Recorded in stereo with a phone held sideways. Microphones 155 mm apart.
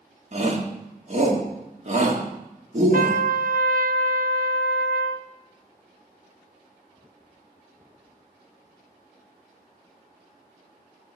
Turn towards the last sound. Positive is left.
turn(degrees=-60)  # may be behind; listen again after turning